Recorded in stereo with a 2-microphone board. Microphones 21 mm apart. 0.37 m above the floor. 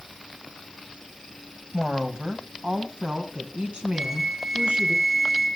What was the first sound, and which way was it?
A woman speaking, 50° right (ahead or behind).